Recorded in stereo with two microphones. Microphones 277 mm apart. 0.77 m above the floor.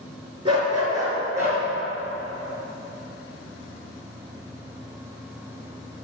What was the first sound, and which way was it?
A dog barking, 20° right (ahead or behind).